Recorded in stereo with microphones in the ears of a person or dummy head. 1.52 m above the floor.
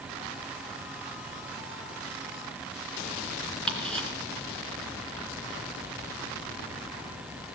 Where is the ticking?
5° left (ahead or behind), 3 m.